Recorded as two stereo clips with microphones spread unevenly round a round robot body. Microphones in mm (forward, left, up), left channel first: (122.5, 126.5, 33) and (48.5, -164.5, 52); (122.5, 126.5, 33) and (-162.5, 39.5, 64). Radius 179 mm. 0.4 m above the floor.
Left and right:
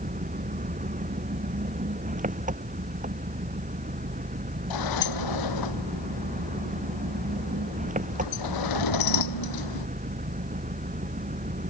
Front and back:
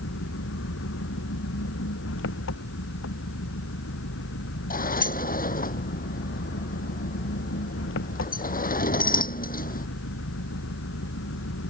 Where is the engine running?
40° right.